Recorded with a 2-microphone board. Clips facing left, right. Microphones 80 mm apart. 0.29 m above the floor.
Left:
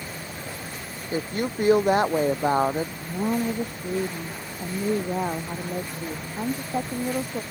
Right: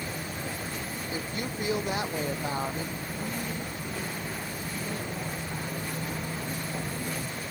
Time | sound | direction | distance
1.1 | a woman speaking | 45° left (ahead or behind) | ?
3.0 | a woman speaking | 85° left | ?